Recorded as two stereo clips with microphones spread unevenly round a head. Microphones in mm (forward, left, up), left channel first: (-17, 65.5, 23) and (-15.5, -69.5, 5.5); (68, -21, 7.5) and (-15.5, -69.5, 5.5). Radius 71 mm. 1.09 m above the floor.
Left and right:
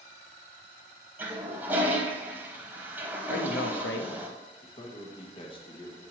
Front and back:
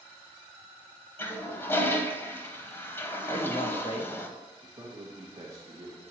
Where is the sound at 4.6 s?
145° left, 1.3 m.